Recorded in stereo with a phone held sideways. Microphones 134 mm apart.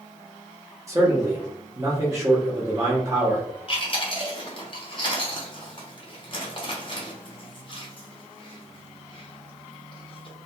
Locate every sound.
0.9 s a man speaking: 25° right (ahead or behind), 0.8 m
3.7 s chewing: 40° left (ahead or behind), 0.7 m